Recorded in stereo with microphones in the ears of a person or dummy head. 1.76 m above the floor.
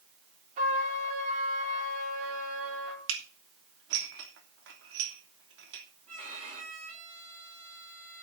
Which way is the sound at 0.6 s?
45° right (ahead or behind).